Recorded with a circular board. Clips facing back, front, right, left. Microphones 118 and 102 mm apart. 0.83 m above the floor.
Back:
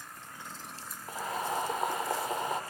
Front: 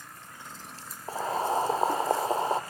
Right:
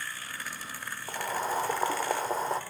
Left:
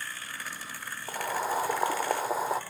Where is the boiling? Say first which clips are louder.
Front 6 dB, left 1 dB; 10° left, 0.5 m.